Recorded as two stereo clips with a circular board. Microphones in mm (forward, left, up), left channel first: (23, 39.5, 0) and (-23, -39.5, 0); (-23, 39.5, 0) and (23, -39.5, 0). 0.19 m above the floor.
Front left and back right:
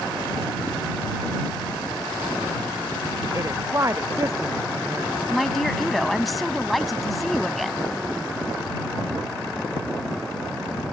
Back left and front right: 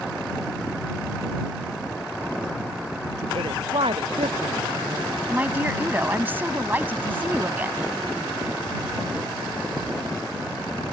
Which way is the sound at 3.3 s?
65° right.